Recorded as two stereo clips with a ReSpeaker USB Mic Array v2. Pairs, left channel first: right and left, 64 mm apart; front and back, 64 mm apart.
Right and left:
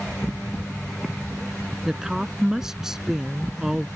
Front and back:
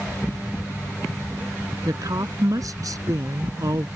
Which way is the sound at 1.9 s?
175° left.